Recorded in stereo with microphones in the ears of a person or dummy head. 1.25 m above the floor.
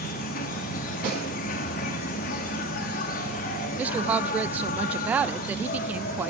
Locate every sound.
0.0 s an insect: 50° left (ahead or behind), 1.1 m
1.0 s a snare drum: 40° right (ahead or behind), 9 m
3.8 s a woman speaking: 10° right (ahead or behind), 0.6 m